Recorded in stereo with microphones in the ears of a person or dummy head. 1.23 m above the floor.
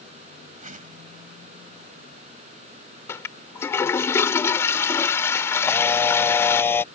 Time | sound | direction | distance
0.6 | a whoosh | 40° right (ahead or behind) | ?
3.1 | a toilet flushing | 15° left (ahead or behind) | ?
5.6 | a camera shutter | 10° left (ahead or behind) | ?